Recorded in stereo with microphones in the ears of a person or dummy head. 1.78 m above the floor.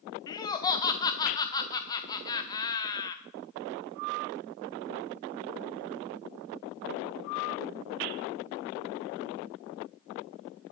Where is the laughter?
20° left (ahead or behind), 0.8 m.